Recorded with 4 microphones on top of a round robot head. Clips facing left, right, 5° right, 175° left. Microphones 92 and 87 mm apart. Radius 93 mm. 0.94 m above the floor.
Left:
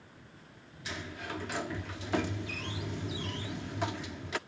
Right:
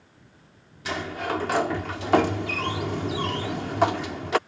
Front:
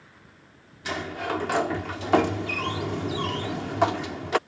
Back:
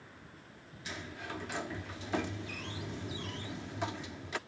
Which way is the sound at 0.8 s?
45° right.